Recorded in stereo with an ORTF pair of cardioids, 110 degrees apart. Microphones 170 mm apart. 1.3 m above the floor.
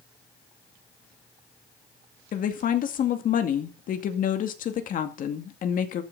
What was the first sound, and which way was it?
A woman speaking, 55° left.